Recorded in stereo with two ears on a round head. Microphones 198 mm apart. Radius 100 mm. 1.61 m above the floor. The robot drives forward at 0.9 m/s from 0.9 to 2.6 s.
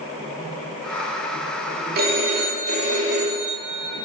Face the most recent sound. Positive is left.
turn(degrees=-35)  # may be behind; listen again after turning